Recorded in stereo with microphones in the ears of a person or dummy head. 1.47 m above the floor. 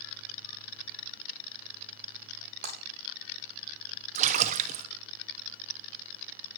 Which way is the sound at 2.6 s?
40° right (ahead or behind).